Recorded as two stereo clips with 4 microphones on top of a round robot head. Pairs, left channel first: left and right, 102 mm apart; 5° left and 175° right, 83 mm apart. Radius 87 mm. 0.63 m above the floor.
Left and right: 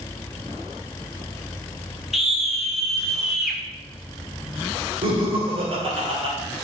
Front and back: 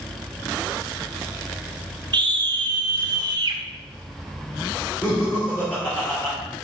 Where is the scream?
Straight behind, 1.5 m.